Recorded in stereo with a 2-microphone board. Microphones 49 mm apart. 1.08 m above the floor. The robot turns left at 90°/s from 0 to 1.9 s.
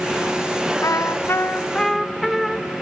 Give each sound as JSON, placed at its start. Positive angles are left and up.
{"t": 0.8, "sound": "a trumpet", "azimuth_deg": 100, "distance_m": 0.5}